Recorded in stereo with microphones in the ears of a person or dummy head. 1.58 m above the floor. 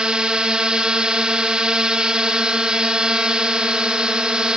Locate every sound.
0.0 s a drone: 5° right (ahead or behind)